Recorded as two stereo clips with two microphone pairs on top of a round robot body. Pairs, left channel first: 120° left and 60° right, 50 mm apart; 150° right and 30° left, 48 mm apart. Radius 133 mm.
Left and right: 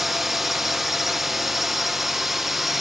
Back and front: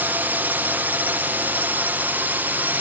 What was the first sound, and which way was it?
A drone, 25° left.